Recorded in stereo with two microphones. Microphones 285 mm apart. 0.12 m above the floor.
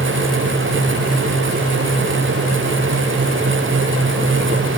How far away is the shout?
No shout in this recording.